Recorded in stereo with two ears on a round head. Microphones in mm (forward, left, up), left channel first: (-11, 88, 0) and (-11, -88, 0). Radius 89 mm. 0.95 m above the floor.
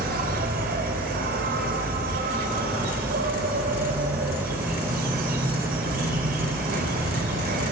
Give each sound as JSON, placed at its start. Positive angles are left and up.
{"t": 0.0, "sound": "an insect", "side_deg": -50, "distance_m": 3.5}